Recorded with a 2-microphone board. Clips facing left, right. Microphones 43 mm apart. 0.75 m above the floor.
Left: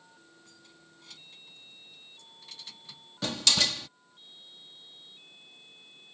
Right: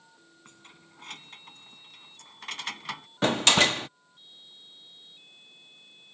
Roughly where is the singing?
I don't hear singing.